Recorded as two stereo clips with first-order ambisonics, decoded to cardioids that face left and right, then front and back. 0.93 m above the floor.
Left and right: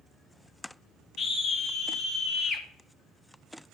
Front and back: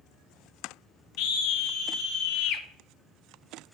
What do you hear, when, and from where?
1.2 s a scream: 20° left, 2 m